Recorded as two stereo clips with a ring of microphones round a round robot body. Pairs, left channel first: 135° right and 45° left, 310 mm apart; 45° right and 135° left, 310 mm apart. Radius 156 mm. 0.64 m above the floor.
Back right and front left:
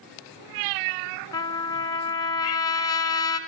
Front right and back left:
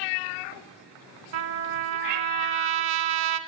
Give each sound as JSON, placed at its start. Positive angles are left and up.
{"t": 1.3, "sound": "a trumpet", "azimuth_deg": 145, "distance_m": 1.6}